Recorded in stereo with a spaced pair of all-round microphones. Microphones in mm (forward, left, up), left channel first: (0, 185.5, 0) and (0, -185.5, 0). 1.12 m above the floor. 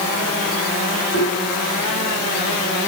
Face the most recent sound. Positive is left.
turn(degrees=25)  # may be behind; listen again after turning